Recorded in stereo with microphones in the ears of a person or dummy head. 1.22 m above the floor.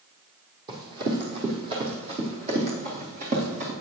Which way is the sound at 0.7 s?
25° right (ahead or behind).